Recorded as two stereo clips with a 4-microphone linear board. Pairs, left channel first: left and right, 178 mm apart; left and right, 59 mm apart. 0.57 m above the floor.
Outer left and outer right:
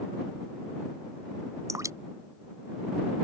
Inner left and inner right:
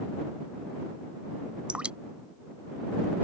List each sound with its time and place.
1.7 s dripping: 20° right (ahead or behind)